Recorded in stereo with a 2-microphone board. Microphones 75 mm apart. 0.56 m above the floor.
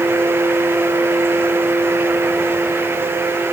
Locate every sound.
Only background noise.